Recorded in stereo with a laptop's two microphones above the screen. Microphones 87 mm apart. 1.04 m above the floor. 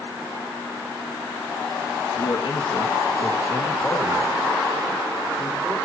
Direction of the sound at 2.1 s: 65° left (ahead or behind).